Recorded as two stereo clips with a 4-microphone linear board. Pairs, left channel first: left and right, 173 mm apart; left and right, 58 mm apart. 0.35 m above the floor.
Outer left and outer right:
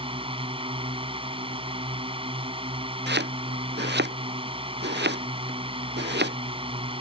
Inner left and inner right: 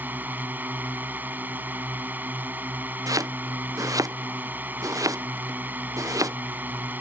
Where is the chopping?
90° right.